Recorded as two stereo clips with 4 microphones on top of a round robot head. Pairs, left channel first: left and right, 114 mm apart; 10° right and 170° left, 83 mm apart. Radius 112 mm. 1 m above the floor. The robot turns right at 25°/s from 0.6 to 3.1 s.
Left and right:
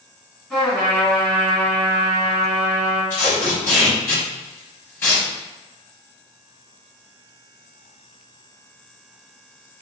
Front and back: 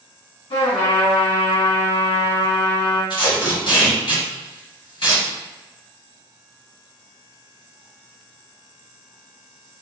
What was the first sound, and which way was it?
A trumpet, 5° right.